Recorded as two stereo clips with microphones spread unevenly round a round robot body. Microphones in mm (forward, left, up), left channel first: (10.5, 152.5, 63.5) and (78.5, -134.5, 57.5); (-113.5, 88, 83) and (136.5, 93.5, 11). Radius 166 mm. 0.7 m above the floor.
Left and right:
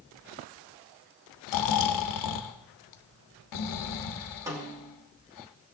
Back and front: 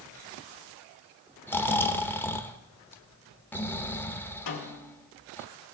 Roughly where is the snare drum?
Behind right.